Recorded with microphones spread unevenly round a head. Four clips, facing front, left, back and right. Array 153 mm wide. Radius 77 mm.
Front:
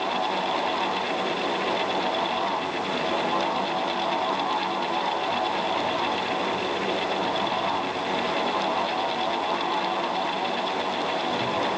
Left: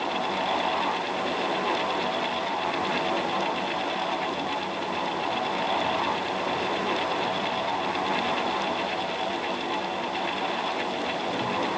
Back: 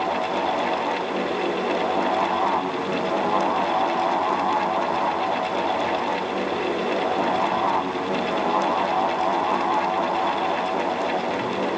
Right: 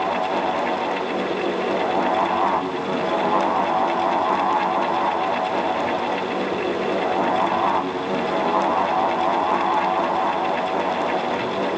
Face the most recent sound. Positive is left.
No sound to turn to.